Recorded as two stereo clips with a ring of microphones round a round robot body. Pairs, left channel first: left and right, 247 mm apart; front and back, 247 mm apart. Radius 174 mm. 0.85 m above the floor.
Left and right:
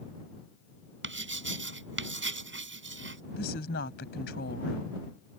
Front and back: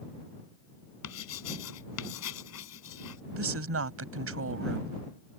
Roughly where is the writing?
Ahead right.